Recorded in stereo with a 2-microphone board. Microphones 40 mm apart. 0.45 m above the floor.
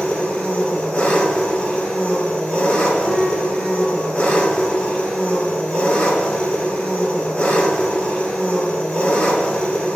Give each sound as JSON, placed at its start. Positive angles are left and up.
{"t": 0.0, "sound": "an engine running", "side_deg": 30, "distance_m": 1.0}
{"t": 3.0, "sound": "a piano", "side_deg": -20, "distance_m": 0.7}